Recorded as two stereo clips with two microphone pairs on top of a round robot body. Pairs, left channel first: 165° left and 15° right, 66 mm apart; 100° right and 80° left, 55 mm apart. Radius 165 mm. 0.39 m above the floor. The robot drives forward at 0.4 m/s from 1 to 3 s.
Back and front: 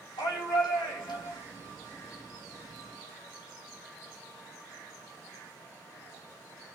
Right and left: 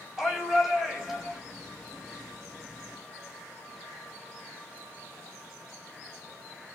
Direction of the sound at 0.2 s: 165° left.